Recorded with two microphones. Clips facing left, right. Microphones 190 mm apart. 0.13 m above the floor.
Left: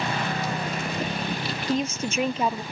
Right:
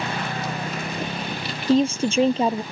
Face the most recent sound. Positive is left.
turn(degrees=-30)  # may be behind; listen again after turning